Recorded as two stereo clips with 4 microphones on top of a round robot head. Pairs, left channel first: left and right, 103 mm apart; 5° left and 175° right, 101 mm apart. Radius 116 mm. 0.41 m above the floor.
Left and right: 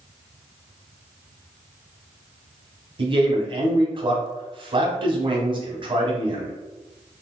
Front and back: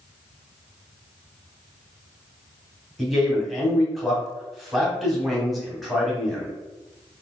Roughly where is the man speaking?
Right.